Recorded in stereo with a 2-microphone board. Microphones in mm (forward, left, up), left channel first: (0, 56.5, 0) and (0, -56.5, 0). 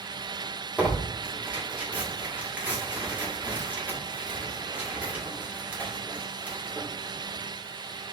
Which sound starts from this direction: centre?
Tearing paper, at 0.8 s.